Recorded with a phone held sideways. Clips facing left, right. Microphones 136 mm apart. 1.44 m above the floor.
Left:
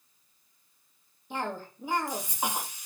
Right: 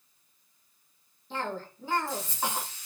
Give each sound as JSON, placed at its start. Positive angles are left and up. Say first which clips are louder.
{"t": 1.3, "sound": "a cough", "louder": "even", "side_deg": 15, "distance_m": 2.5}